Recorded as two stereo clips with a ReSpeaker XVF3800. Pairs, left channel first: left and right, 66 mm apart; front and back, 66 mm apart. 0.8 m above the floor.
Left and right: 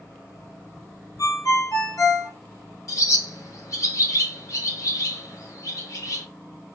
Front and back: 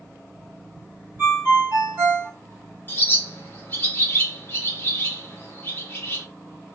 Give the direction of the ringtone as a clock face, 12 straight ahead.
8 o'clock.